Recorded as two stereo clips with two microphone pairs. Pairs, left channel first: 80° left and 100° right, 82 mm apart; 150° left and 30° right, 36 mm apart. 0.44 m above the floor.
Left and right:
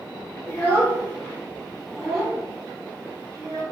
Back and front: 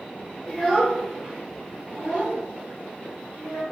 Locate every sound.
0.5 s a child speaking: 70° left, 1.0 m; by 3.6 s 45° right, 1.6 m